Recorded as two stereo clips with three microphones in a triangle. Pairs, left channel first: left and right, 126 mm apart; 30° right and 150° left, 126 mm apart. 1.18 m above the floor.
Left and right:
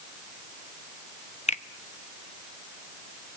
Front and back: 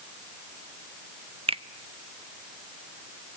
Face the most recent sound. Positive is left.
turn(degrees=110)